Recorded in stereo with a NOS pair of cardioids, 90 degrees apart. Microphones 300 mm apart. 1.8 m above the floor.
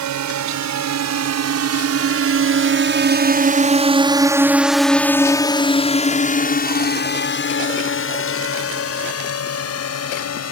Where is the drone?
70° right; by 10.5 s 55° left.